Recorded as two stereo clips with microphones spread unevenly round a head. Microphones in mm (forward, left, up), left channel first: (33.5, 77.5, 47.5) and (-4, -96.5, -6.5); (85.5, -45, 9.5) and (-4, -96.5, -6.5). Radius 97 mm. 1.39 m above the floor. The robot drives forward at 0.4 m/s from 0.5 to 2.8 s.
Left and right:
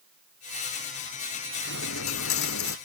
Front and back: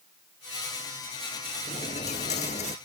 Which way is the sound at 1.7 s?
75° left.